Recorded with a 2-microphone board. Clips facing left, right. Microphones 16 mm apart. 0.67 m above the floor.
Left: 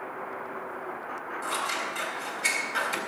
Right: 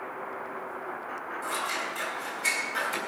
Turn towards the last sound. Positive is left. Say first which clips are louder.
# left 1 dB
turn(degrees=20)  # may be behind; listen again after turning